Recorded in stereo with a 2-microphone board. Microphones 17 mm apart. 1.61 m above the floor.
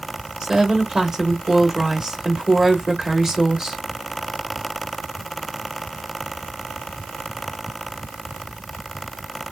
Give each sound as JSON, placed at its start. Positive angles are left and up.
{"t": 0.4, "sound": "a woman speaking", "side_deg": -30, "distance_m": 2.0}